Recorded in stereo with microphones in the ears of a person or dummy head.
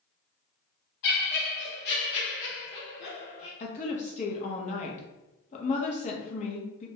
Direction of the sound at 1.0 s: 55° left (ahead or behind).